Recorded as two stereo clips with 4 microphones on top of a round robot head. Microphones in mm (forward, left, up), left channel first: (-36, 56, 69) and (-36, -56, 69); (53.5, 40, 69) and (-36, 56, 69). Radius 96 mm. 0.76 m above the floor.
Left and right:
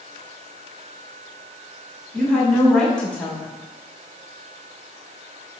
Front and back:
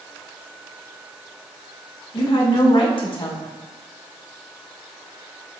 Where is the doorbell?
I don't hear a doorbell.